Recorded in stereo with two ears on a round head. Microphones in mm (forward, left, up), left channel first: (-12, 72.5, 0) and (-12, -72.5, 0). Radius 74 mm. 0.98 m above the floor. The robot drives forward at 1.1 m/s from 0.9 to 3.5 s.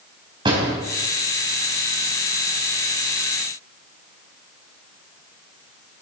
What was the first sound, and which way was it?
A door slam, 30° right (ahead or behind).